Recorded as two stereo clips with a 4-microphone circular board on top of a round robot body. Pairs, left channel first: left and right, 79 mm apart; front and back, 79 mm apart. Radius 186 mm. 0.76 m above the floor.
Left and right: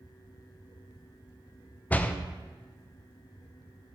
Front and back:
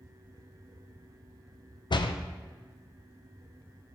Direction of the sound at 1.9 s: 15° left.